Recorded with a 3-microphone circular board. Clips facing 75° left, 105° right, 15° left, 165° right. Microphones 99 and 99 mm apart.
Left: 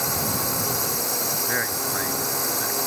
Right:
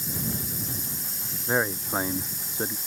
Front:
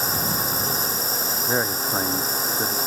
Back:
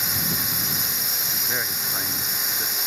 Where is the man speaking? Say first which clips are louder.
Right 6 dB, front 7 dB; 40° right.